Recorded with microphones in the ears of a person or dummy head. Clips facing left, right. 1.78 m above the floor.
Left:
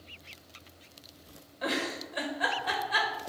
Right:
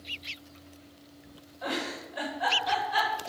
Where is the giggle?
25° left (ahead or behind), 1.6 m.